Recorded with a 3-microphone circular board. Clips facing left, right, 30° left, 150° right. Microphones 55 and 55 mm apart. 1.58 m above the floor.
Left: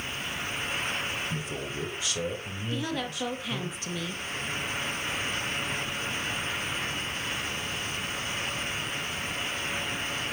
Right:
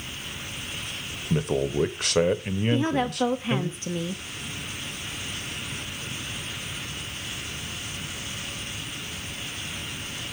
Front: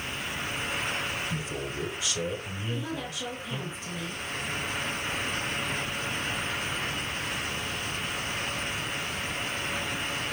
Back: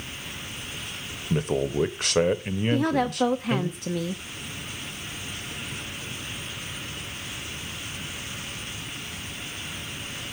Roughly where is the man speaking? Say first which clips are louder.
Right 9 dB, back 8 dB; behind right.